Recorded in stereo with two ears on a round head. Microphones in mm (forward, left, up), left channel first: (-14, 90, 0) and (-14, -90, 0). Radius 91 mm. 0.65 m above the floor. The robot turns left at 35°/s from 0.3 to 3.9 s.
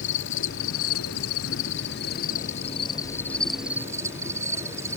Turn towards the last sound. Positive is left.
turn(degrees=-15)